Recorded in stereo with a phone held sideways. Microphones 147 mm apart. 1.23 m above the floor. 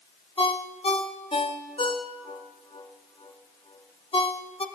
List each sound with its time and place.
0.4 s a ringtone: 40° left (ahead or behind), 0.7 m